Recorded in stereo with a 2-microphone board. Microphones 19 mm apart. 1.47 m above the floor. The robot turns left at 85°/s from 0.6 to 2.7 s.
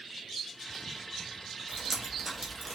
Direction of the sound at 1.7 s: 25° right (ahead or behind).